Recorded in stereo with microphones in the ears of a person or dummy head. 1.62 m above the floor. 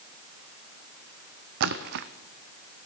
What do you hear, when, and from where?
1.6 s a splash: 65° right (ahead or behind), 0.5 m